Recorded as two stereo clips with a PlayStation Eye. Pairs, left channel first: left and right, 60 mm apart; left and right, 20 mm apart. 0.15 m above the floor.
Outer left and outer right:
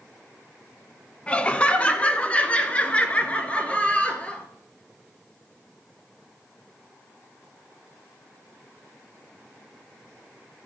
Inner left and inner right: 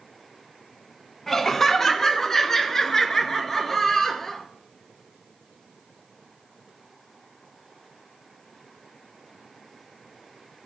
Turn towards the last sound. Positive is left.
turn(degrees=20)  # may be behind; listen again after turning